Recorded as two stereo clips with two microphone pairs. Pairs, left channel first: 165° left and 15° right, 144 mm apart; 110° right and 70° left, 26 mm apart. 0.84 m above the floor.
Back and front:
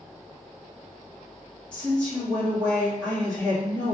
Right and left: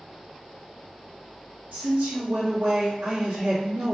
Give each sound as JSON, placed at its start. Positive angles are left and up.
{"t": 1.7, "sound": "a woman speaking", "azimuth_deg": 80, "distance_m": 1.5}